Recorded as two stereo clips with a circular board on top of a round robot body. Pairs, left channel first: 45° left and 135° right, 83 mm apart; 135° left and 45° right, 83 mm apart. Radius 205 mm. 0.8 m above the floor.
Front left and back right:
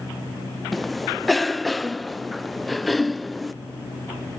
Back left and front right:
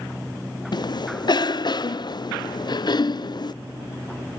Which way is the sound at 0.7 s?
135° left.